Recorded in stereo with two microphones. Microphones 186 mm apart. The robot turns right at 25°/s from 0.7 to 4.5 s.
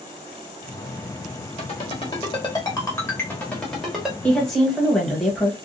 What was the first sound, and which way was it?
A ringtone, 35° left (ahead or behind).